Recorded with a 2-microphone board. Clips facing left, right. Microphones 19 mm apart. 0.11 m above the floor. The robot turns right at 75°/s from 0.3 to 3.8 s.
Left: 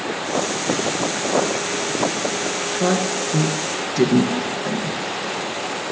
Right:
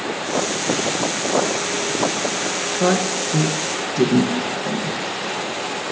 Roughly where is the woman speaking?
Right.